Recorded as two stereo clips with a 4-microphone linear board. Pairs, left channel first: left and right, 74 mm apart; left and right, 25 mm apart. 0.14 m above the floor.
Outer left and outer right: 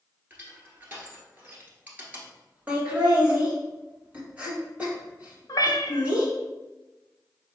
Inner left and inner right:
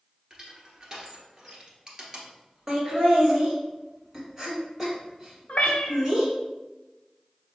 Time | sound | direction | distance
0.3 | crushing | 25° right (ahead or behind) | 1.2 m
2.7 | laughter | 20° right (ahead or behind) | 1.5 m
5.5 | a cat meowing | 60° left (ahead or behind) | 0.7 m